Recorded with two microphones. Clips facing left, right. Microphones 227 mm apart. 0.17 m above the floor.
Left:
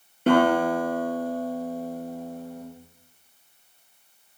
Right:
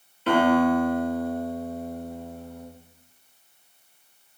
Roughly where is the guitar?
Left.